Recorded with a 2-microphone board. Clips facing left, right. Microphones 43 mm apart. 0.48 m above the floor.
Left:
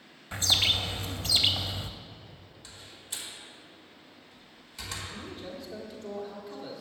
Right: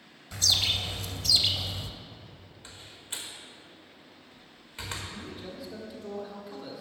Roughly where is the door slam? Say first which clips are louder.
Right 2 dB; right.